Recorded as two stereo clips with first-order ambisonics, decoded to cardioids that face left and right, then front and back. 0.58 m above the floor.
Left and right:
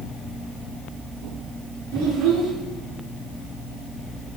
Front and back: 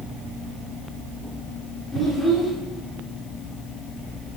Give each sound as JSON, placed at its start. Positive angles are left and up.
{"t": 1.9, "sound": "a child speaking", "azimuth_deg": -85, "distance_m": 6.5}